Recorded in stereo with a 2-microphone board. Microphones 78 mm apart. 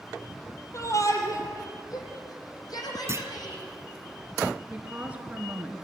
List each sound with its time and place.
0.7 s a shout: 40° left (ahead or behind), 3 m; by 3.6 s 60° left (ahead or behind), 6.5 m
3.1 s a clunk: 35° right (ahead or behind), 1.1 m
4.7 s a woman speaking: 15° right (ahead or behind), 2.5 m